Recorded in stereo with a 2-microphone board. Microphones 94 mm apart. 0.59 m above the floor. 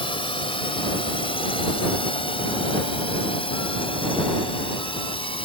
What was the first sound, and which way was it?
A drone, 70° left (ahead or behind).